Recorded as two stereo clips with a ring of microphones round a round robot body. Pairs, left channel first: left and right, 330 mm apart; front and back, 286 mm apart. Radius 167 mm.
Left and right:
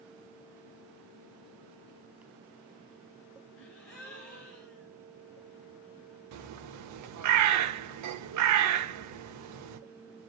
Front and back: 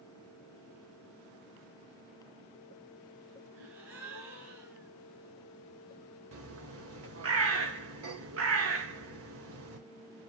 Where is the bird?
130° right, 0.8 m.